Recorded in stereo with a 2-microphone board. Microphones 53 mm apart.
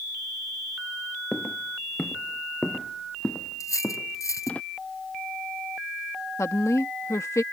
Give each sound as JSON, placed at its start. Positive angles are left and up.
{"t": 1.3, "sound": "footsteps", "side_deg": 0}
{"t": 3.6, "sound": "cutlery clinking", "side_deg": 85}
{"t": 6.4, "sound": "a woman speaking", "side_deg": 70}